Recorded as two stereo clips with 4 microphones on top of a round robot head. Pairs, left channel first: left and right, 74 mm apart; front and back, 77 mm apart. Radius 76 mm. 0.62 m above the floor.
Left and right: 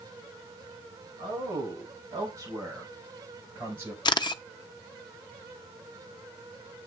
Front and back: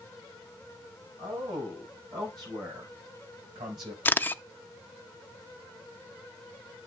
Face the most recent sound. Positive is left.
turn(degrees=70)